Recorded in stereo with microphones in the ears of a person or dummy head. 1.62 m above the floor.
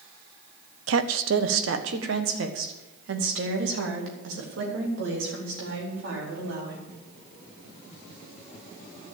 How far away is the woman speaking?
About 0.7 m.